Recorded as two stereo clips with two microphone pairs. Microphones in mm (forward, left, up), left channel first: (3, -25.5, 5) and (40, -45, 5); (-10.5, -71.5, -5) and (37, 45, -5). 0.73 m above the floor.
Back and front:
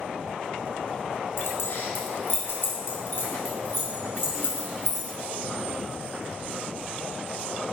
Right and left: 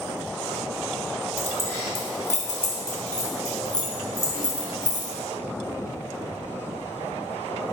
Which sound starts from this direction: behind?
Keys jangling, at 1.4 s.